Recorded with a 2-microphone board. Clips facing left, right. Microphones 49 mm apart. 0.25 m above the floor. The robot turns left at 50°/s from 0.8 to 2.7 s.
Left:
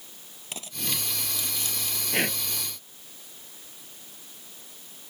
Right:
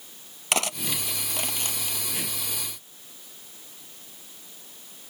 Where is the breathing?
50° left (ahead or behind); by 2.4 s 60° left (ahead or behind).